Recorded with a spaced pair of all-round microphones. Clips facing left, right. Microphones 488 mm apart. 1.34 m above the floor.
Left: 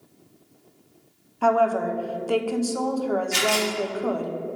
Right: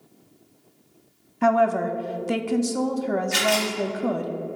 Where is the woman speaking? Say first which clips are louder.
Right 1 dB; 40° right (ahead or behind), 0.5 m.